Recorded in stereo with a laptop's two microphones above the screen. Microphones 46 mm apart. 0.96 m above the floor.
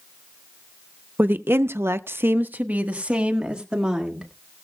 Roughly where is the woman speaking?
Right.